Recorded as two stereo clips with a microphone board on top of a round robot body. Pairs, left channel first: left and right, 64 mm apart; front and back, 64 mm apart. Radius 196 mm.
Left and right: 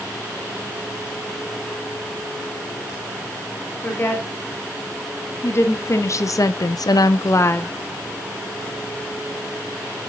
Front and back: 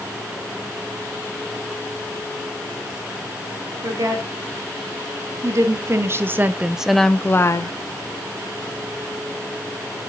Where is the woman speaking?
150° left, 2.5 m; by 7.7 s 30° left, 0.8 m.